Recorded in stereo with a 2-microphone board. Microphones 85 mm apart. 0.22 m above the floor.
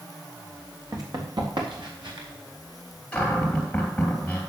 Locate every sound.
0.9 s running footsteps: 50° right (ahead or behind), 3 m; by 2.3 s 70° right (ahead or behind), 4 m
3.1 s a cupboard door: 10° left (ahead or behind), 3 m